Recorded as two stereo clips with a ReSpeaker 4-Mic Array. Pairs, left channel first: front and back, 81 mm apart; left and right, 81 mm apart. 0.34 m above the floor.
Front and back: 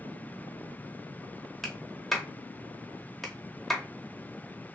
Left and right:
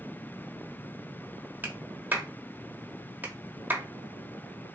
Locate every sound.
1.6 s a clap: 90° right, 0.9 m